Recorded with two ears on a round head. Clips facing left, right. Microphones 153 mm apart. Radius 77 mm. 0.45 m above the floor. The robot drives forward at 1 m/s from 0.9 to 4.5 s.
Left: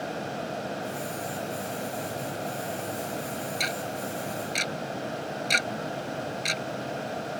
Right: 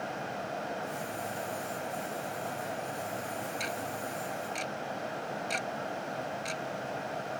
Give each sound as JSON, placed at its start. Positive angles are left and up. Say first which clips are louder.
{"t": 3.6, "sound": "ticking", "louder": "left 4 dB", "side_deg": 70}